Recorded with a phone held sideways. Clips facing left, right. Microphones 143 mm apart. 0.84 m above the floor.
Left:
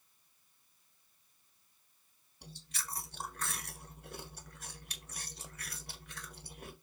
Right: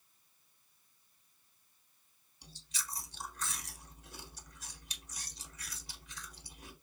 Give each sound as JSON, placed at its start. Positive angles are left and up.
{"t": 2.4, "sound": "chewing", "side_deg": 65, "distance_m": 1.2}